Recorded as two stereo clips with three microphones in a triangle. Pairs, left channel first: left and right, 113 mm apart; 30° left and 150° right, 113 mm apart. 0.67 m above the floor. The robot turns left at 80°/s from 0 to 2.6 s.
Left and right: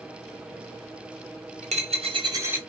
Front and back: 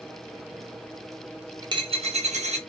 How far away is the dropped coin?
About 0.6 m.